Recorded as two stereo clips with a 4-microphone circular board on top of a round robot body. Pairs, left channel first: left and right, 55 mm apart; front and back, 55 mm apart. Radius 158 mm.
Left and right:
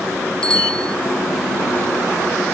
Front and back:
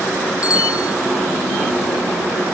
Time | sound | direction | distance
0.4 | a bicycle bell | 15° left | ?